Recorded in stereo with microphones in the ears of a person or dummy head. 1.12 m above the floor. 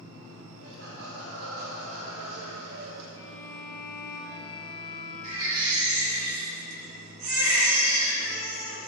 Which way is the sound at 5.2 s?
85° right.